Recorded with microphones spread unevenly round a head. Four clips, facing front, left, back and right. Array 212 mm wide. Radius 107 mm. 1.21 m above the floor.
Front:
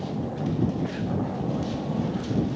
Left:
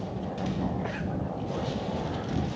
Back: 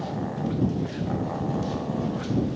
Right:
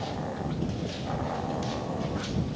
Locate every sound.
Only background noise.